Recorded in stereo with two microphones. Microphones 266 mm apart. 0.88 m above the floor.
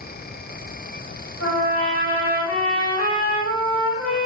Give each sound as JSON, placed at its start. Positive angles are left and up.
{"t": 1.4, "sound": "a trumpet", "side_deg": 65, "distance_m": 1.7}